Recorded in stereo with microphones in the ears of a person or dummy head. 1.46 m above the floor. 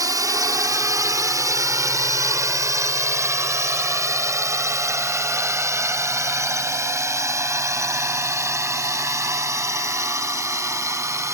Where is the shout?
No shout in this recording.